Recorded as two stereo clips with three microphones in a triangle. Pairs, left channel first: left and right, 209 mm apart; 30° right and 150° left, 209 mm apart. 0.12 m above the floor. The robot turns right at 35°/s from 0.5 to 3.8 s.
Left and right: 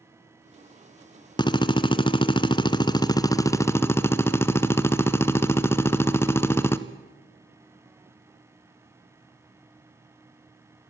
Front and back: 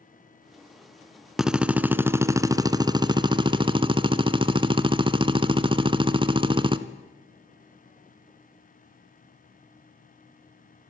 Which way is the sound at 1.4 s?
65° left.